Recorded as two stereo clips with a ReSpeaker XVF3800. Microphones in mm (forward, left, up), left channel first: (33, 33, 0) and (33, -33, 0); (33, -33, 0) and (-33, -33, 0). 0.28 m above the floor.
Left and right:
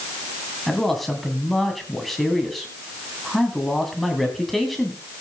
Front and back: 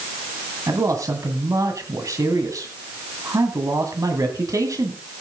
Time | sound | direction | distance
0.7 | a man speaking | straight behind | 2 m